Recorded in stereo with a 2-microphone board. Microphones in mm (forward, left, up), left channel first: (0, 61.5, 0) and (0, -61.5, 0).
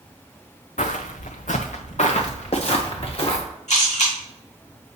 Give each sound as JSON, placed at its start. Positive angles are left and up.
{"t": 0.8, "sound": "footsteps", "side_deg": 75, "distance_m": 0.7}
{"t": 3.7, "sound": "a camera shutter", "side_deg": 65, "distance_m": 3.0}